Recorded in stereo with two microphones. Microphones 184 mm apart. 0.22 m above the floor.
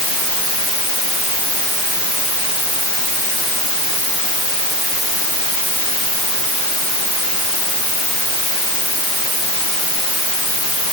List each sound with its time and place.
Only background noise.